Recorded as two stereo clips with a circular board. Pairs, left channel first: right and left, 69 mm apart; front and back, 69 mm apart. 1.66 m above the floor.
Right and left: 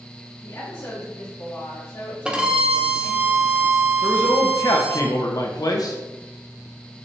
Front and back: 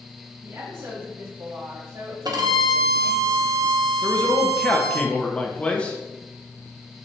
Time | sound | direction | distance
0.4 | a woman speaking | 145° right | 2.5 m
2.2 | a violin | 165° left | 1.0 m
4.0 | a man speaking | 70° right | 1.3 m